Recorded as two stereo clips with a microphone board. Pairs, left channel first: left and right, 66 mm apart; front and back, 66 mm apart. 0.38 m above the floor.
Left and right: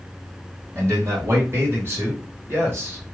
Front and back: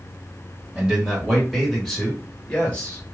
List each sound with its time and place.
0.8 s a man speaking: 110° right, 2 m; by 3.0 s 55° right, 2.0 m